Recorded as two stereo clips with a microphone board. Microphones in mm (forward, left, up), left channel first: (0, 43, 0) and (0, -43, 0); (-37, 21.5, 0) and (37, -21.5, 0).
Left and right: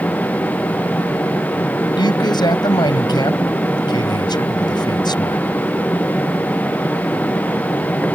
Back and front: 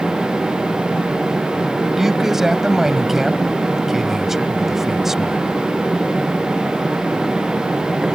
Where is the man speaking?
55° left.